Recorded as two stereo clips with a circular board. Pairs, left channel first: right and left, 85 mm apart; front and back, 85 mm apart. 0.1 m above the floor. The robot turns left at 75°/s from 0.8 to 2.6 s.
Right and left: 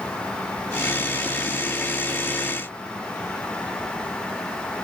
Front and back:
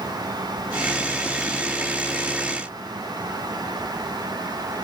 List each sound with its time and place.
Only background noise.